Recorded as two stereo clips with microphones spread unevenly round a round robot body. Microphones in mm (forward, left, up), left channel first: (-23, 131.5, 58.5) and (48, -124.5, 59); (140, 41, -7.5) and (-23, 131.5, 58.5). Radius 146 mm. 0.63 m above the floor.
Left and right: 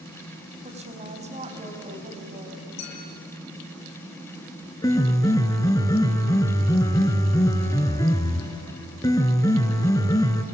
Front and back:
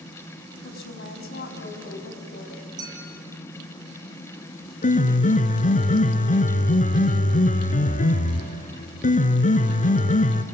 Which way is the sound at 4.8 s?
30° left.